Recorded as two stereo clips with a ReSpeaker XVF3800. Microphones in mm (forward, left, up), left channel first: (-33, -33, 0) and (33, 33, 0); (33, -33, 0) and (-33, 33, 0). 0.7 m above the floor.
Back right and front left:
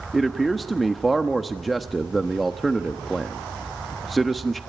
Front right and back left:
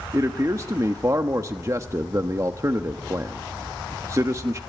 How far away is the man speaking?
About 1.0 m.